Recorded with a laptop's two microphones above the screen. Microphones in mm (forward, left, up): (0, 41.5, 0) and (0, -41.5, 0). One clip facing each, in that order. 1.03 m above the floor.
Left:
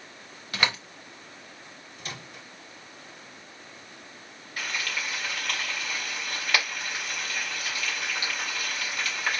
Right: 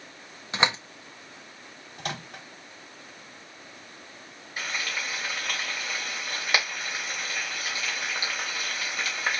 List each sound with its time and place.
0.5 s a door slam: 25° right (ahead or behind), 0.6 m
2.0 s a microwave: 70° right (ahead or behind), 1.1 m
4.6 s frying: 15° right (ahead or behind), 1.9 m